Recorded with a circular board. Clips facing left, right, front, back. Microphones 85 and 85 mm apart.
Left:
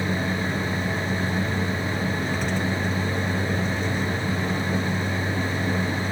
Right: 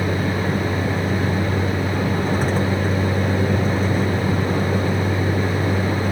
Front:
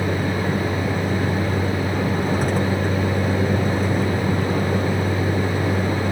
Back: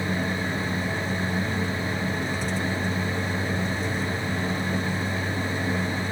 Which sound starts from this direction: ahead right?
A vehicle, at 0.0 s.